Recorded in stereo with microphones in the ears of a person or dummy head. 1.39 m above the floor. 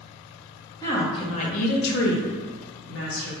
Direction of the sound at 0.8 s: 20° left (ahead or behind).